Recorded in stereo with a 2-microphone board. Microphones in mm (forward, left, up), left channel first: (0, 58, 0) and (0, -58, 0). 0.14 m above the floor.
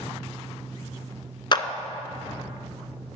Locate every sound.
1.5 s a clap: 40° left (ahead or behind), 1.0 m